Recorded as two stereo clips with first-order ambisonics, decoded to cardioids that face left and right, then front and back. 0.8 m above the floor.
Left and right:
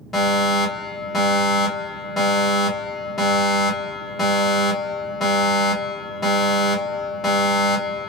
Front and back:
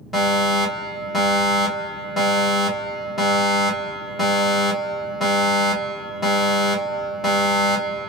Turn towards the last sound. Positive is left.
turn(degrees=55)